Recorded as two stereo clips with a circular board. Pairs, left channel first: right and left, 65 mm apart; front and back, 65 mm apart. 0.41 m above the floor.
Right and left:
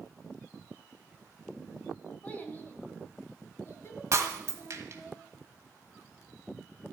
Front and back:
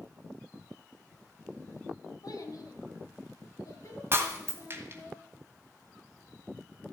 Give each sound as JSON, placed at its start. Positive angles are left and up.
{"t": 2.2, "sound": "a child speaking", "azimuth_deg": -20, "distance_m": 2.0}
{"t": 4.1, "sound": "breaking glass", "azimuth_deg": 130, "distance_m": 1.5}